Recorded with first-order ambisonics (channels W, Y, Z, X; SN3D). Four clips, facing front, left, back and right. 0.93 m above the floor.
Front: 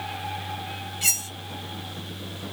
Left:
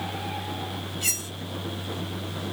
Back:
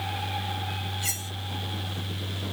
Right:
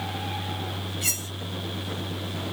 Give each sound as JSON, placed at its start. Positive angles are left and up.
{"t": 1.0, "sound": "cutlery clinking", "azimuth_deg": -5, "distance_m": 1.7}